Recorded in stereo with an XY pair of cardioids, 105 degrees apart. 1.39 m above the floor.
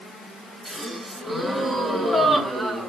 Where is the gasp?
15° right, 2 m.